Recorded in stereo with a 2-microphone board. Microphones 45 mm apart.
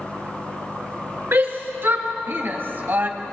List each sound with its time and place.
1.3 s a shout: 55° right (ahead or behind), 4.5 m; by 3.1 s 40° right (ahead or behind), 1.9 m